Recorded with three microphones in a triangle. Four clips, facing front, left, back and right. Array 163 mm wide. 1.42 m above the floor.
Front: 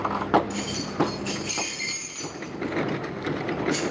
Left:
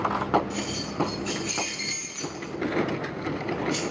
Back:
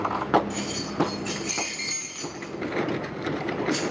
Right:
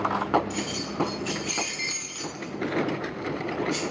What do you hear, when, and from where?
0.5 s keys jangling: 110° right, 1.6 m; by 3.8 s 70° left, 1.5 m